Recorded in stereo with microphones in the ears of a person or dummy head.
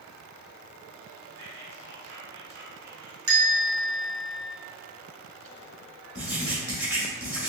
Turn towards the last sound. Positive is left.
turn(degrees=-10)  # may be behind; listen again after turning